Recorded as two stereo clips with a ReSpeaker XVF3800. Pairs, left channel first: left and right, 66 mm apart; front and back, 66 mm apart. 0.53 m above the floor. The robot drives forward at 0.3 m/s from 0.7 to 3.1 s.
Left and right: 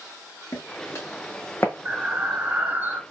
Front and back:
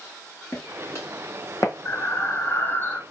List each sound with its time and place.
0.5 s footsteps: 40° left, 2.5 m; by 1.7 s 30° left, 1.2 m
1.9 s breathing: 25° right, 1.0 m; by 3.0 s 45° right, 0.8 m